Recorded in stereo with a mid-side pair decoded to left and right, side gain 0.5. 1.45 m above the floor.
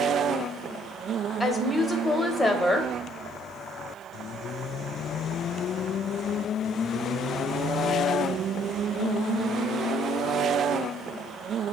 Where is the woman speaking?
25° left, 1.1 m.